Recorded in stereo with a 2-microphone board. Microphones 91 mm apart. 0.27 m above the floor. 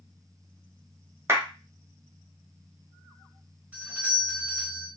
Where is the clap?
25° right (ahead or behind), 0.9 m.